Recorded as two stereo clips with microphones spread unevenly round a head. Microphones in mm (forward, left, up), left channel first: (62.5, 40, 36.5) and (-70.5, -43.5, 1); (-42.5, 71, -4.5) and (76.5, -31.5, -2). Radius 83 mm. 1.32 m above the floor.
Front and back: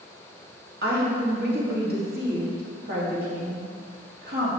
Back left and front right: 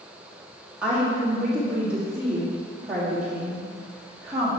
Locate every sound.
0.8 s a woman speaking: 125° right, 3 m